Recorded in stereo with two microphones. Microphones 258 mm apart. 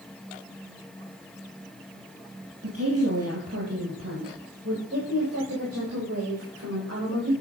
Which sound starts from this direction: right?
A woman speaking, at 2.6 s.